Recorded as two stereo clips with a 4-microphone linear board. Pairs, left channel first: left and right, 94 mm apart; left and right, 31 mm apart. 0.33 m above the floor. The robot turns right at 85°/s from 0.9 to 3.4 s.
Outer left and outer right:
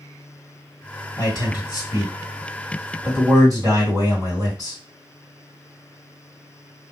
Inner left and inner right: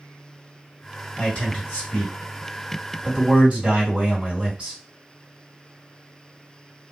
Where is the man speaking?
60° left, 1.9 m; by 4.8 s 110° right, 1.9 m.